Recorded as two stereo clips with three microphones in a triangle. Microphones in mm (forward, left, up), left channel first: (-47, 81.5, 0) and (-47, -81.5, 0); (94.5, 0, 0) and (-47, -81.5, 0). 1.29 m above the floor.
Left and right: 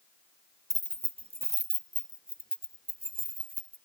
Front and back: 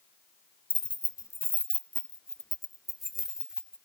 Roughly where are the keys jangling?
Ahead right.